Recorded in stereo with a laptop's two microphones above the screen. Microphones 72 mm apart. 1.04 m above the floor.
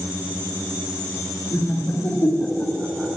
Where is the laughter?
55° left (ahead or behind), 2.5 m; by 3.1 s 10° right (ahead or behind), 1.1 m.